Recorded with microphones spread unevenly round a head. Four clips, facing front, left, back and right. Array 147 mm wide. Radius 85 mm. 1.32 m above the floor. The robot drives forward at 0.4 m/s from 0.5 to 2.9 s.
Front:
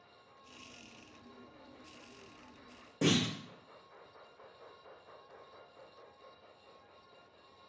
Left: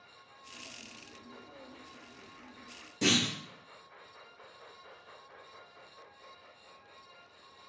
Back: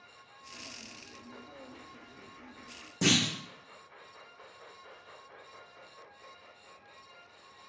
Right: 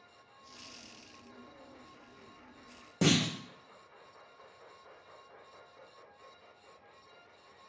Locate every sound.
3.0 s a clunk: 110° right, 0.7 m